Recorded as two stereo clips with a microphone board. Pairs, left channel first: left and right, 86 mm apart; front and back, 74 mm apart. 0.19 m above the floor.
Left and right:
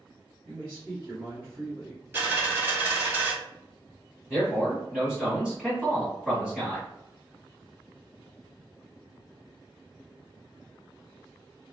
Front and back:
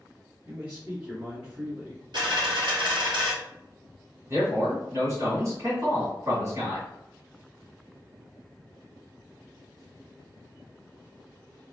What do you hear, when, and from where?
0.5 s a man speaking: 130° right, 1.5 m
2.1 s a dropped coin: 155° right, 1.4 m
4.3 s a man speaking: 170° right, 1.8 m